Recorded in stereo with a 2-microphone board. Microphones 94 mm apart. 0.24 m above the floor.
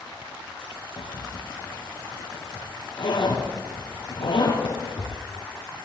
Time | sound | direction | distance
1.0 | a zipper | 60° left (ahead or behind) | 3.5 m